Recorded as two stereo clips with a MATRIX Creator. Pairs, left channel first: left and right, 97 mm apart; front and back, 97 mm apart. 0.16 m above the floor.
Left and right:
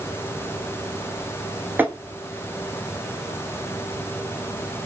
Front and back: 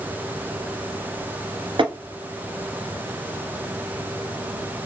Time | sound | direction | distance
1.8 | tapping | 160° right | 0.8 m